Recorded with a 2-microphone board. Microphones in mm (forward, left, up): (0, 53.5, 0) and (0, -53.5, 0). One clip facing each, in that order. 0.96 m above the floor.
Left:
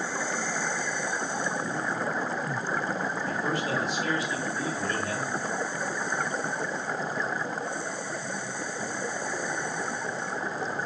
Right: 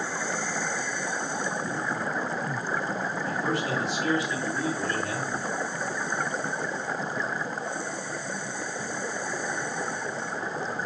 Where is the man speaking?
80° right, 3.5 m.